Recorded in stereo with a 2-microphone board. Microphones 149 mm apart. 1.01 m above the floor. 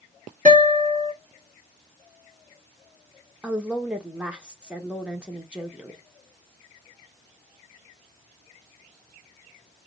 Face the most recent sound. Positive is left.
turn(degrees=-5)  # may be behind; listen again after turning